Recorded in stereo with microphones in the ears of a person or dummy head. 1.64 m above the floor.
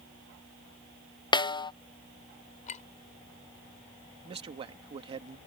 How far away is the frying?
No frying in this recording.